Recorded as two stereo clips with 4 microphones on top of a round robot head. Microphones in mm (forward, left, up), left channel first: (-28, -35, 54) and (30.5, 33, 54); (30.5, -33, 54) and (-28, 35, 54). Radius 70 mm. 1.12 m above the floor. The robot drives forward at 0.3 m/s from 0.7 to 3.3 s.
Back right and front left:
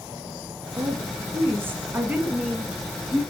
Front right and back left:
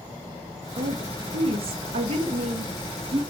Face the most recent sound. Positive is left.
turn(degrees=135)